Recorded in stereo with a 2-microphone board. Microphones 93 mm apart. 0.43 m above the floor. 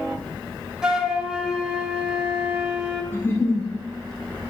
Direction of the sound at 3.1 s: 25° left (ahead or behind).